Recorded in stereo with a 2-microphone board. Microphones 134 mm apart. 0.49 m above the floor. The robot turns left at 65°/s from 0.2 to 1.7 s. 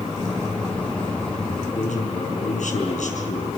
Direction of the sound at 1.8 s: 70° left (ahead or behind).